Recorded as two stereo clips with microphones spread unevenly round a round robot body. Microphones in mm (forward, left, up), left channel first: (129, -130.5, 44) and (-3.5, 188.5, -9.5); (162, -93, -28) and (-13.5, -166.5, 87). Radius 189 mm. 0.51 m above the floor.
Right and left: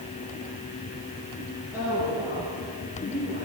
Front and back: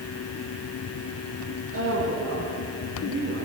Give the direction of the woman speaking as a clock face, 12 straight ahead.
5 o'clock.